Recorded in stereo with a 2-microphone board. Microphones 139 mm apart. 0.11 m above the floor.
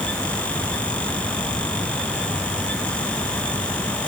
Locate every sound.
Only background noise.